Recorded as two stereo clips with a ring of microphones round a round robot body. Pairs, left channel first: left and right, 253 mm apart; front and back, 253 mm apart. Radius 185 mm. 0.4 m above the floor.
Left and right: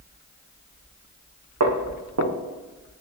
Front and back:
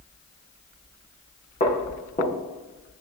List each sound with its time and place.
1.6 s footsteps: 75° right, 2.5 m